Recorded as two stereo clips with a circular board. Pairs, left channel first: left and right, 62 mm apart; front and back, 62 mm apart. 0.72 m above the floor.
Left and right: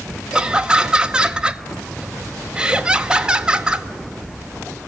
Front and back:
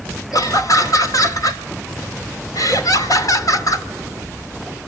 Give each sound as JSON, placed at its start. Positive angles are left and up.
{"t": 0.3, "sound": "laughter", "azimuth_deg": -15, "distance_m": 2.0}